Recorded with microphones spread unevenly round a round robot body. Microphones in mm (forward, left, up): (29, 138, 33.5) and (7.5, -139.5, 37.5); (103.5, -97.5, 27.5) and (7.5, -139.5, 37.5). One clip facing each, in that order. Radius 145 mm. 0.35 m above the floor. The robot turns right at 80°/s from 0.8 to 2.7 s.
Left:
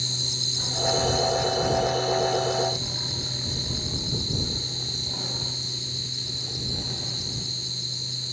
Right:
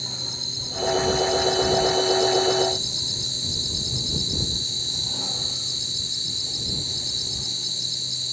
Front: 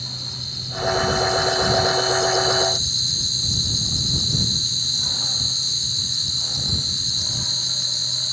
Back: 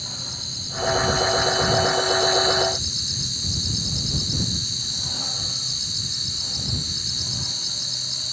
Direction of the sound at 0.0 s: 160° left.